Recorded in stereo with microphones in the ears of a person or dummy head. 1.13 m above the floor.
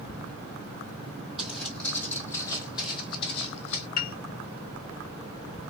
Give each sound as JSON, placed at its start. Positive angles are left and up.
{"t": 1.4, "sound": "footsteps", "side_deg": 0, "distance_m": 1.9}
{"t": 4.0, "sound": "a piano", "side_deg": 45, "distance_m": 0.6}